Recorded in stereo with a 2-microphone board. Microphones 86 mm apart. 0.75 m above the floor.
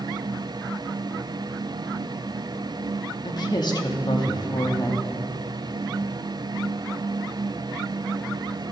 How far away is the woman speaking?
About 1.1 m.